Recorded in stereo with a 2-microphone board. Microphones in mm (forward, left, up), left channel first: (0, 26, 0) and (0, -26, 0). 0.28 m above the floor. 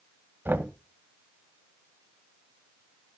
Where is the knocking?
40° right (ahead or behind), 1.4 m.